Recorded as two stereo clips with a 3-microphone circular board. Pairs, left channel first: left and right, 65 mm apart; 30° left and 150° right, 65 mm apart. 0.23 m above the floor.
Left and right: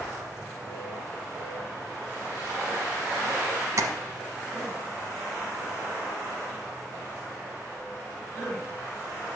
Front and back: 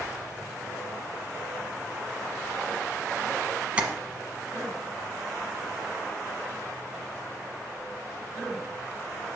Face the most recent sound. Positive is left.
turn(degrees=-85)